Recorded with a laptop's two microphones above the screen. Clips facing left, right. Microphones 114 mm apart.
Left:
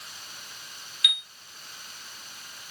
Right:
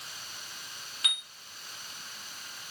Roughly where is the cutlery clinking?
I don't hear cutlery clinking.